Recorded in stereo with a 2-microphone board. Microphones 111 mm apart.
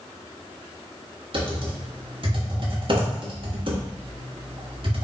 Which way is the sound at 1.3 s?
50° right (ahead or behind).